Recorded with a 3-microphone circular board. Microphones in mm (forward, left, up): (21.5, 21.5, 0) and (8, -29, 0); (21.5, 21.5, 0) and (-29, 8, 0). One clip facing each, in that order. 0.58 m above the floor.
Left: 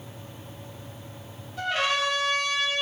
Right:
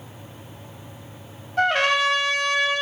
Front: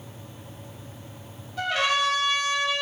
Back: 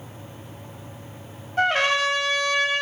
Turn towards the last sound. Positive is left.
turn(degrees=-125)